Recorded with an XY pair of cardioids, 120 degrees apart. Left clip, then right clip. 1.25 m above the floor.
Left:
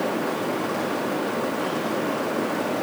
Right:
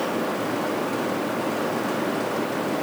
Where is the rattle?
I don't hear a rattle.